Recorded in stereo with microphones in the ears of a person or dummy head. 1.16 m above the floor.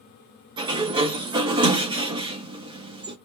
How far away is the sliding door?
About 0.6 m.